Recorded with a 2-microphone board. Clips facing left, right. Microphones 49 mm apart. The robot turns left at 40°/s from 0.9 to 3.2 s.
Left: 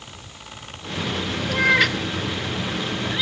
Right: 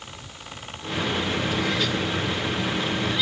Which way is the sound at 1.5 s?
80° left.